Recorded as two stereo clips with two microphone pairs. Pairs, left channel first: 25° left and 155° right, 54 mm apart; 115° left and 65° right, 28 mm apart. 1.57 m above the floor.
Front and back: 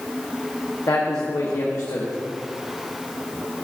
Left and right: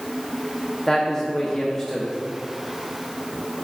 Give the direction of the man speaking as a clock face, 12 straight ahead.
11 o'clock.